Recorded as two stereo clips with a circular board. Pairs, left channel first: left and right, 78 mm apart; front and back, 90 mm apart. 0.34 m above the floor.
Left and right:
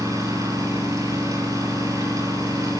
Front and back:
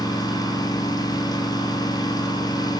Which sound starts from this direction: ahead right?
An engine running, at 0.0 s.